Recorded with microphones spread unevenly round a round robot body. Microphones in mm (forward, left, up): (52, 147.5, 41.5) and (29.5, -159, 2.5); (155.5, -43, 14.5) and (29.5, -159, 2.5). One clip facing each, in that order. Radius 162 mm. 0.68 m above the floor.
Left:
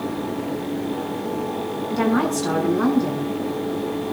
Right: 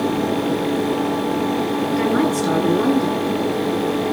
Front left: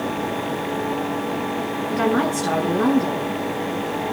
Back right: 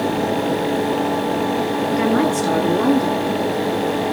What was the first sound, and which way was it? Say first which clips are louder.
A woman speaking: even, back right 2 dB; 125° left.